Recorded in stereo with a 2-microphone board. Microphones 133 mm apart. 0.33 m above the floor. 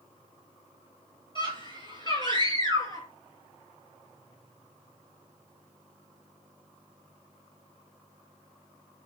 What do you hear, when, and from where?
1.4 s a scream: 35° left (ahead or behind), 6.5 m; by 3.1 s 30° left (ahead or behind), 6 m